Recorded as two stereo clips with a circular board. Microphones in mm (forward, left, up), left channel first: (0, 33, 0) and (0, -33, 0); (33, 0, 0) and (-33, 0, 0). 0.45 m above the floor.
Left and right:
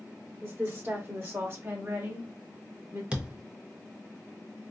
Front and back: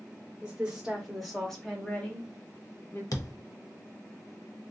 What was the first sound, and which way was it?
A woman speaking, 115° right.